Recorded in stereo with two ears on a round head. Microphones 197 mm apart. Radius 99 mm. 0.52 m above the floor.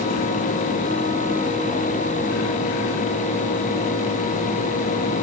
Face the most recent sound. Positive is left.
No sound to turn to.